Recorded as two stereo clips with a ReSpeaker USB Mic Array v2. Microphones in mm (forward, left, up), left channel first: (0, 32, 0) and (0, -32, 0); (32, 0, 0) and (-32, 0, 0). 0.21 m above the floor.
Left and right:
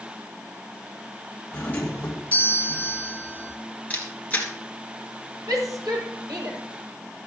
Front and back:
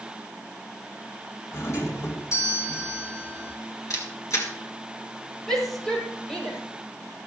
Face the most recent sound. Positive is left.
turn(degrees=-80)